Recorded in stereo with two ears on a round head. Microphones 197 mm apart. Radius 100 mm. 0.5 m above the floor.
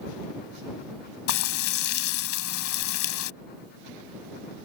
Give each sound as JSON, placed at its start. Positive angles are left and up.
{"t": 1.3, "sound": "frying", "side_deg": 65}